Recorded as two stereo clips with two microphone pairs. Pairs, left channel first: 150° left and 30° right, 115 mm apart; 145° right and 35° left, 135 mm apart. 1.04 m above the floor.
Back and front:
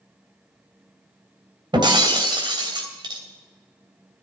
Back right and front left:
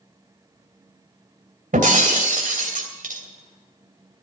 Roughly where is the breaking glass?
Ahead.